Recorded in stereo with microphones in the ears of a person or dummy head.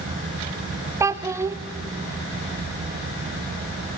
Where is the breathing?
I don't hear breathing.